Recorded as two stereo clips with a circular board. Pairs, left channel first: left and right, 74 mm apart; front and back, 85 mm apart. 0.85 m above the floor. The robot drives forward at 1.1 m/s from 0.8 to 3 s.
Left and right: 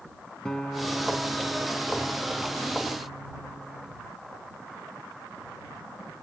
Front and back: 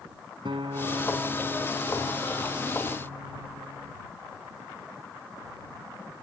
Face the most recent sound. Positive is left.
turn(degrees=170)